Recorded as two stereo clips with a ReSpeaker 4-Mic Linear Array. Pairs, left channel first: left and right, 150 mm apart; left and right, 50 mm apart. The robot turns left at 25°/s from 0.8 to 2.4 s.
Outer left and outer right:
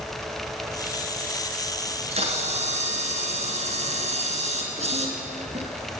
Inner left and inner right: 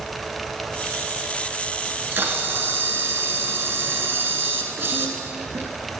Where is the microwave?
No microwave in this recording.